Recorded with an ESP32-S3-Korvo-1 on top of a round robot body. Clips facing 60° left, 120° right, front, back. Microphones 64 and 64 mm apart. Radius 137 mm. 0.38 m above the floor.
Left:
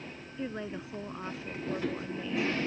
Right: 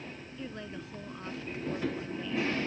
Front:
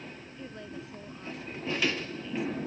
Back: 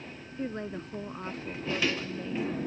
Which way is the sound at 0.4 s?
130° left.